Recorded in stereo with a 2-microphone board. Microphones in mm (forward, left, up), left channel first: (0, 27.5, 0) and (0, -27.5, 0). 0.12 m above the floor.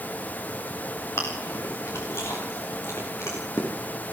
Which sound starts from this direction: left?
Chewing, at 1.2 s.